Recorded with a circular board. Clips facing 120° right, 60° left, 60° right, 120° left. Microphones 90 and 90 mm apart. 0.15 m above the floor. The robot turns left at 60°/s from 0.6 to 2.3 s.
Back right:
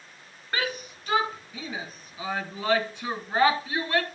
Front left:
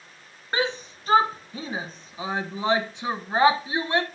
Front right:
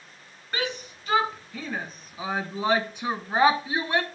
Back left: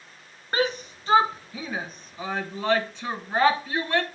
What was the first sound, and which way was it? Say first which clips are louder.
A shout: front left 4 dB, back left 6 dB; 110° left.